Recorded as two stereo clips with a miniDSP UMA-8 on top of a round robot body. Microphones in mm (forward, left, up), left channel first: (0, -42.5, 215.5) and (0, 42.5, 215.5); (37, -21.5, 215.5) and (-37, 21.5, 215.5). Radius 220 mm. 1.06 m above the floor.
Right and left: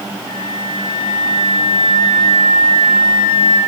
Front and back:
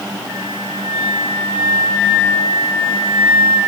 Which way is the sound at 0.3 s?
135° right.